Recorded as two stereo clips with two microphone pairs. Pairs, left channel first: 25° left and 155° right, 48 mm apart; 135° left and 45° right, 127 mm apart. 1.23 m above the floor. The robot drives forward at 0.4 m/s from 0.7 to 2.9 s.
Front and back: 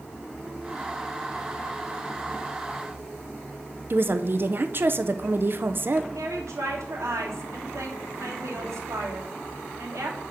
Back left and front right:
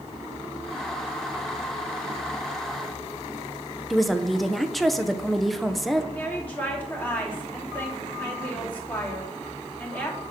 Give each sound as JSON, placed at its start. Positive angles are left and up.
{"t": 3.9, "sound": "a woman speaking", "azimuth_deg": -140, "distance_m": 0.7}
{"t": 6.1, "sound": "a woman speaking", "azimuth_deg": -150, "distance_m": 2.5}